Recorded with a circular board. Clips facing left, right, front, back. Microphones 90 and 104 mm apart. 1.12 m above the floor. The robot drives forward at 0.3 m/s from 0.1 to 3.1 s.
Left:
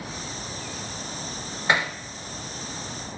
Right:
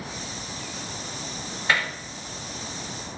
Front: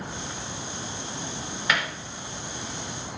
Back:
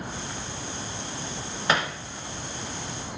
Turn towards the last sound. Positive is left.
turn(degrees=160)